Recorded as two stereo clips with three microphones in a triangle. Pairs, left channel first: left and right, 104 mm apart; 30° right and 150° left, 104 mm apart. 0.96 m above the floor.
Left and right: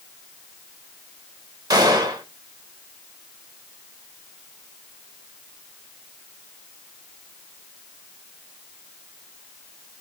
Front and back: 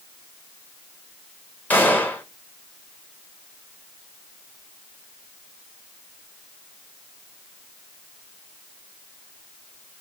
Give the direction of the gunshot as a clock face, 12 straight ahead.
3 o'clock.